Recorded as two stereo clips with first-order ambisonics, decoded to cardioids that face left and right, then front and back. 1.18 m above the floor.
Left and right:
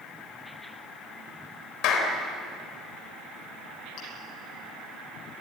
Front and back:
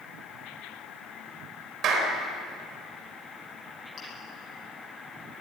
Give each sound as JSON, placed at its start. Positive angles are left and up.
{"t": 1.8, "sound": "a clap", "azimuth_deg": 125, "distance_m": 4.0}
{"t": 4.0, "sound": "chewing", "azimuth_deg": 60, "distance_m": 9.5}